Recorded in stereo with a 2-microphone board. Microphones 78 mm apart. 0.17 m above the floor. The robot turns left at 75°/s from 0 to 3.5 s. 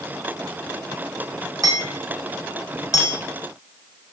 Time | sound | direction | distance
1.6 | hammering | 50° right (ahead or behind) | 4.5 m